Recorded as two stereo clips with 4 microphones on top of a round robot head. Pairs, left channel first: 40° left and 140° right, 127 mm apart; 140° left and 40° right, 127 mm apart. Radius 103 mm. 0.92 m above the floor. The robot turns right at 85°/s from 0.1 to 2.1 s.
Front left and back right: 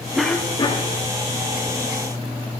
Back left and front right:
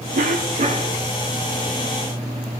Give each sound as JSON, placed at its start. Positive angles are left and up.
{"t": 0.1, "sound": "a cough", "azimuth_deg": -55, "distance_m": 1.9}